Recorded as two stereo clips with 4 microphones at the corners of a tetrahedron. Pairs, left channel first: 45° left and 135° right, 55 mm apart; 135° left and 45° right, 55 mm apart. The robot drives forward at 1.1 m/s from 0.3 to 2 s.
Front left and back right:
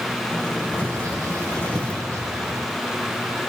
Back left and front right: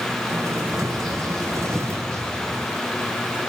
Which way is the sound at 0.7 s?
140° right.